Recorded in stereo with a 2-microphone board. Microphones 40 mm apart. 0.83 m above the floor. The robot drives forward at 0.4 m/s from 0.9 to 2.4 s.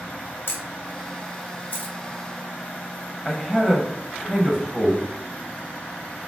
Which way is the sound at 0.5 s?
60° left (ahead or behind).